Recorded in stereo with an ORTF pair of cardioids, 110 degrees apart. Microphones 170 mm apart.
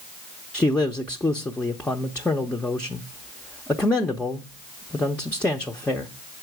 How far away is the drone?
I don't hear a drone.